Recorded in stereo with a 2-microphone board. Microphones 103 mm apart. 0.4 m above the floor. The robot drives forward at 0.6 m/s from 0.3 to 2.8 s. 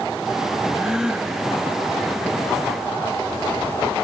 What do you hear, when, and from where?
0.7 s a gasp: 5° right (ahead or behind)